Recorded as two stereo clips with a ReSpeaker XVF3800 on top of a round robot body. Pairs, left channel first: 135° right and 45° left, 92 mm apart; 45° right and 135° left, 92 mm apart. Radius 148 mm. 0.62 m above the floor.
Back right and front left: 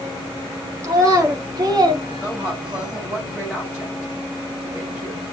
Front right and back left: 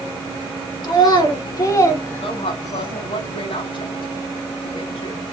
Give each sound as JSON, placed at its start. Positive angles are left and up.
{"t": 0.8, "sound": "a child speaking", "azimuth_deg": -10, "distance_m": 2.0}
{"t": 2.1, "sound": "a woman speaking", "azimuth_deg": -35, "distance_m": 5.5}